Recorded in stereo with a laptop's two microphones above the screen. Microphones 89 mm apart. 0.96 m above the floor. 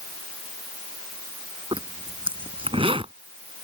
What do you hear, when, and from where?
1.7 s a zipper: 85° right